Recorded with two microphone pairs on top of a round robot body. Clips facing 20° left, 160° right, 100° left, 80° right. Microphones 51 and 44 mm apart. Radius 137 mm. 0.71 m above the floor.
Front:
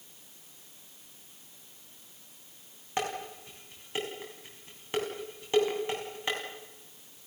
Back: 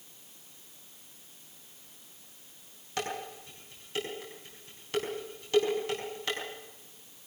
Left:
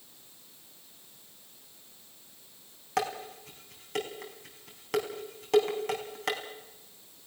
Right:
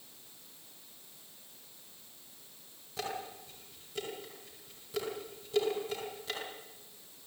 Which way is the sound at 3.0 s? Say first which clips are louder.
Front 2 dB, left 7 dB; 90° left.